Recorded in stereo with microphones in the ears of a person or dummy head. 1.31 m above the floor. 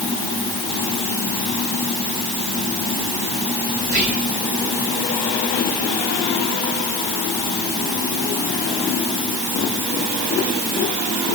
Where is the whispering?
45° right (ahead or behind), 2 m.